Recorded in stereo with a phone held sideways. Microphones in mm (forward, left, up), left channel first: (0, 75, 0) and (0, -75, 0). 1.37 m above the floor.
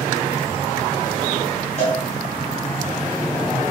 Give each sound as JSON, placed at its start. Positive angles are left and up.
{"t": 1.8, "sound": "a cowbell", "side_deg": 50, "distance_m": 7.0}